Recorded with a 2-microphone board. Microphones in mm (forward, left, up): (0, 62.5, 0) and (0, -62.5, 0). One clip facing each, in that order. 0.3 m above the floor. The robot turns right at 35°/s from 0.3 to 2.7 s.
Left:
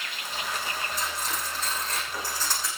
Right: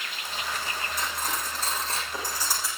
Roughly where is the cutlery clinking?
Right.